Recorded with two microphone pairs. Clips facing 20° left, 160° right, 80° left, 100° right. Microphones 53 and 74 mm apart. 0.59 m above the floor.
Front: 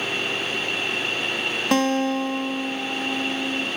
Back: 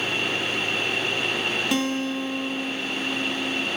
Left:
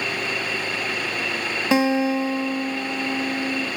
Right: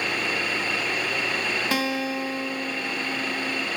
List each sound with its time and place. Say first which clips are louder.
1.7 s a guitar: front 4 dB, left 11 dB; 15° left, 0.6 m